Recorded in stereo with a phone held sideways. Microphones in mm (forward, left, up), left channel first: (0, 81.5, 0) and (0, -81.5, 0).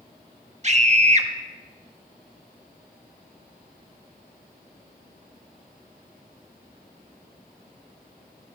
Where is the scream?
45° right (ahead or behind), 1.1 m.